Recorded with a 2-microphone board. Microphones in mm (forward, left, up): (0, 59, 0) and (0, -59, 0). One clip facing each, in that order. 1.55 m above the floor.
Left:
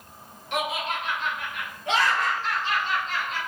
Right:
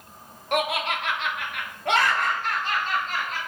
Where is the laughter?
60° right (ahead or behind), 0.5 m; by 3.4 s 40° right (ahead or behind), 1.5 m.